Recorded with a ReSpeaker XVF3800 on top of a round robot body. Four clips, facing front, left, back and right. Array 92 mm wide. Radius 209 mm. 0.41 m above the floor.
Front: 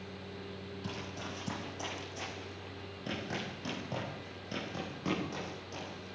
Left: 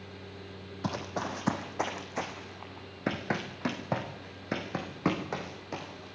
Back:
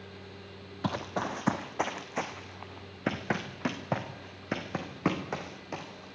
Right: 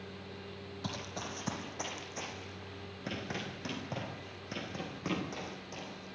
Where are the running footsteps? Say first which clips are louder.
Left 8 dB, back 12 dB; 155° left, 0.9 m; by 6.1 s 140° left, 5 m.